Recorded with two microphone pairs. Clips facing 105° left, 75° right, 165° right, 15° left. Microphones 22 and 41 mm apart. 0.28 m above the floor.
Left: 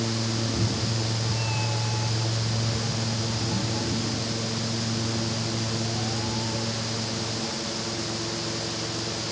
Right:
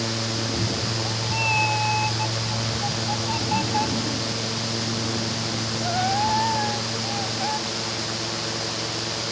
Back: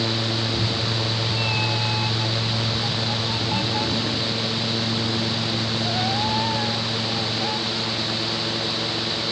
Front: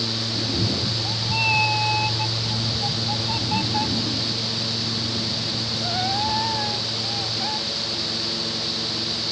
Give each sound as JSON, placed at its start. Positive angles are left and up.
{"t": 0.3, "sound": "a cat meowing", "azimuth_deg": -20}